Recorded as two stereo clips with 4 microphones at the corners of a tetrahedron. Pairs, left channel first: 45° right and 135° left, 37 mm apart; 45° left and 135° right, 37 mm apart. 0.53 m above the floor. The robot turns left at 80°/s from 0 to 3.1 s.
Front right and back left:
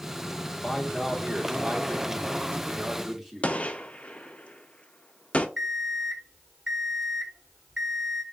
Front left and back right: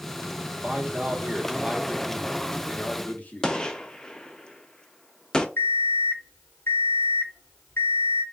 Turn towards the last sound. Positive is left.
turn(degrees=50)